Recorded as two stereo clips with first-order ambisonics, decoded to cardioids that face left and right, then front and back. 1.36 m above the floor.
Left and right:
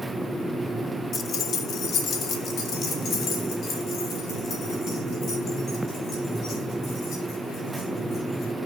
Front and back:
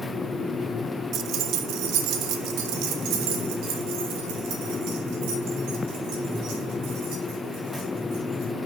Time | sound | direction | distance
1.1 | keys jangling | 145° left | 0.5 m